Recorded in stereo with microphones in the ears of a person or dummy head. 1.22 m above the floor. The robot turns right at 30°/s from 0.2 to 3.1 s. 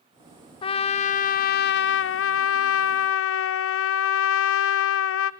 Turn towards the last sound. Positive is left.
turn(degrees=100)